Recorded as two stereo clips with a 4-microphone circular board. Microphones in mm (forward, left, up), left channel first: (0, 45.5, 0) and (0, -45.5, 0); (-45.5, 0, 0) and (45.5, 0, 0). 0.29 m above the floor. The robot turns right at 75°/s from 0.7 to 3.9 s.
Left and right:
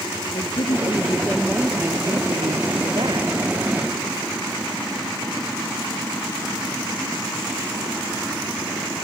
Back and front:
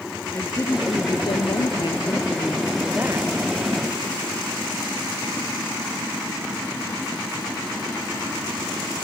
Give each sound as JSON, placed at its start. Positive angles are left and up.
{"t": 0.3, "sound": "a woman speaking", "azimuth_deg": 120}